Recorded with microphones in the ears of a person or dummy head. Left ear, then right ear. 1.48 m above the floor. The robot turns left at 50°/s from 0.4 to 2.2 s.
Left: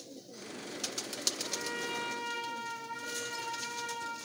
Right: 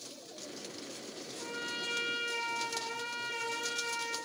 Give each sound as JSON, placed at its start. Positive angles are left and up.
{"t": 1.4, "sound": "a trumpet", "azimuth_deg": -35, "distance_m": 2.5}